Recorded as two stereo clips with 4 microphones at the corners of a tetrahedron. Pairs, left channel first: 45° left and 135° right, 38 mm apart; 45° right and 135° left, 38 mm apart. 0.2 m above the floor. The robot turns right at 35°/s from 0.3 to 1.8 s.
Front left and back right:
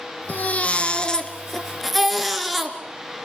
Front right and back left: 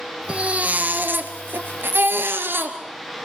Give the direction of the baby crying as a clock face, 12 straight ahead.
9 o'clock.